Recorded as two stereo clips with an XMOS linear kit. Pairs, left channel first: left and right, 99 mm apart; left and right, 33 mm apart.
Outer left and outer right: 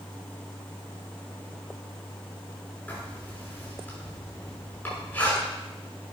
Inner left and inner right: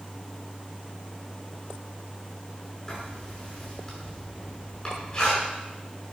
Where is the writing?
20° left (ahead or behind), 6.5 m.